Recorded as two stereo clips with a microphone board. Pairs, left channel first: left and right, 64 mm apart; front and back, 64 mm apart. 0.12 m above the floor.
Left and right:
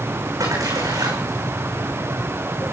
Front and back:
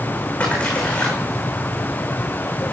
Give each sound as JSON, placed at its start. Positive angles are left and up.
{"t": 0.4, "sound": "a splash", "azimuth_deg": -70, "distance_m": 5.5}